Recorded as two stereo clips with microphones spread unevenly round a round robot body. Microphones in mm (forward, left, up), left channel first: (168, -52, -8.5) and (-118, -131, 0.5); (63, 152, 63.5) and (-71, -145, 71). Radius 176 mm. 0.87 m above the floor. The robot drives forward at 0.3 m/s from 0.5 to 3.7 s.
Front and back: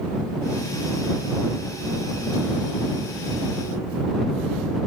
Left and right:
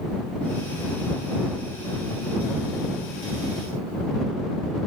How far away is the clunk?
I don't hear a clunk.